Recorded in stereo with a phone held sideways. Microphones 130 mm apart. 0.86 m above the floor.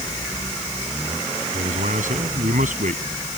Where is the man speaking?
85° right.